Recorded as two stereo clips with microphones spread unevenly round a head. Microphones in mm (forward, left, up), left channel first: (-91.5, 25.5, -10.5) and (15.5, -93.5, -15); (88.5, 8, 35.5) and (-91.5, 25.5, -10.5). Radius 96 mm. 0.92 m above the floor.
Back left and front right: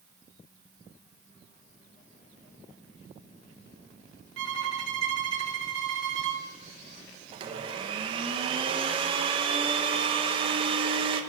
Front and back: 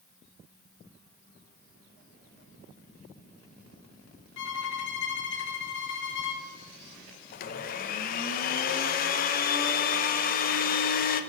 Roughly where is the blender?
Ahead right.